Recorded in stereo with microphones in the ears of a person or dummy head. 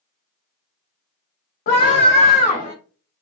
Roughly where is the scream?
Left.